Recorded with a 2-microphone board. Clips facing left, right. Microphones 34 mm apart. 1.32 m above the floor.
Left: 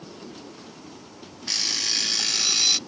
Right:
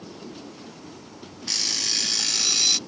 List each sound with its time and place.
1.5 s an alarm clock: 10° left (ahead or behind)